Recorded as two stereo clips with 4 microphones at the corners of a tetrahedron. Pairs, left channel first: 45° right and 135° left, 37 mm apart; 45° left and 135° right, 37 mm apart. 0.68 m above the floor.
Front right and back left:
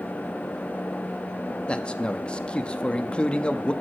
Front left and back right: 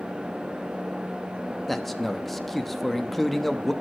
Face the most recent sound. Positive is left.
turn(degrees=-35)